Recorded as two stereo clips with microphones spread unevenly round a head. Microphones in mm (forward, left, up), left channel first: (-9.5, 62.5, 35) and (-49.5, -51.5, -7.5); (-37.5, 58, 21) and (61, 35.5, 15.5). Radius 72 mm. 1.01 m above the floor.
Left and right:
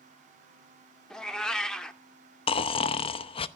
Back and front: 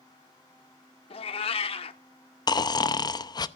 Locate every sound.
1.1 s a cat meowing: 145° left, 1.0 m
2.5 s snoring: 115° left, 0.7 m